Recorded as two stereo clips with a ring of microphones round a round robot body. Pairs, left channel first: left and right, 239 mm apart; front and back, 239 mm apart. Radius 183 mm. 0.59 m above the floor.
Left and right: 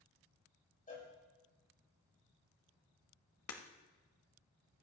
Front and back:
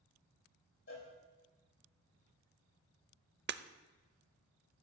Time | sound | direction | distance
0.9 | a cowbell | 35° left | 6.5 m
3.5 | breaking glass | 135° left | 0.7 m